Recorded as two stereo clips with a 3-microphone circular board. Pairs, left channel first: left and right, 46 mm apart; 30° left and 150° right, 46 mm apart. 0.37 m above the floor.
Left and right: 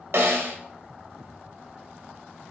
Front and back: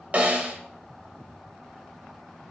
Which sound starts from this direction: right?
A snare drum, at 0.1 s.